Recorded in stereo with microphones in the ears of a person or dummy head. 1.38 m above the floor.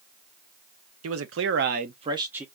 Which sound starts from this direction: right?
A man speaking, at 1.0 s.